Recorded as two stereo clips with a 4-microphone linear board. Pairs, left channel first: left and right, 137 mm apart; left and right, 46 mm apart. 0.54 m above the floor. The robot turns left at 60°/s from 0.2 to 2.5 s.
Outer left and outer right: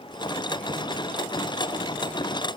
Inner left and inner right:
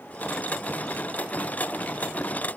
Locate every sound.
Only background noise.